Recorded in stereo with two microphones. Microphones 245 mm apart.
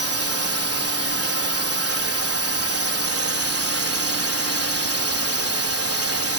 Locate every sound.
0.0 s a drone: 70° right (ahead or behind)